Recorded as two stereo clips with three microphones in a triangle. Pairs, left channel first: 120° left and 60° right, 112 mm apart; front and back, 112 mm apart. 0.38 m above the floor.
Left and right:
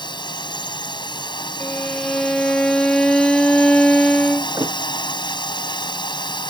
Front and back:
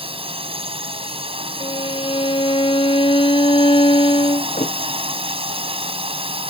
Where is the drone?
160° left.